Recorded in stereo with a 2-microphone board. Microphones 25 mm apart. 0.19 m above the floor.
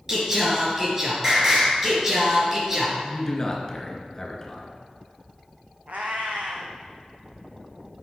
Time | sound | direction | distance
0.1 | singing | 20° right (ahead or behind) | 3 m
3.0 | a man speaking | 25° left (ahead or behind) | 2.5 m
5.9 | a cat meowing | 65° right (ahead or behind) | 2.0 m